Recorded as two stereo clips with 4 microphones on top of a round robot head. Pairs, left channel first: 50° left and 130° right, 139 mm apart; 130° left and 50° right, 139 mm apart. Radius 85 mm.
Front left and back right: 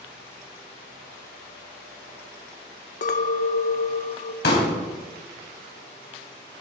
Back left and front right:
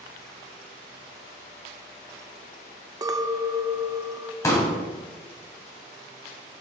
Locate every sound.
3.0 s a clink: 15° left, 0.7 m
4.4 s a pop: 60° left, 3 m